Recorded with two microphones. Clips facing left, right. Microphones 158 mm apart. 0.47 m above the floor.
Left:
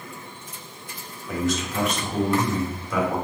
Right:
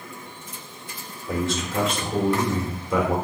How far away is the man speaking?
About 0.9 m.